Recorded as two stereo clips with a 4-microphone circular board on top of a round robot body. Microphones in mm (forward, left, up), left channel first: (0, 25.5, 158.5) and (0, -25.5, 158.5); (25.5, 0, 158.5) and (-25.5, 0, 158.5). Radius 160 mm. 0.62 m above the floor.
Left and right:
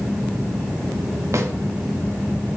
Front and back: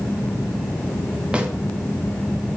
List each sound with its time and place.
1.3 s a snare drum: 110° right, 1.2 m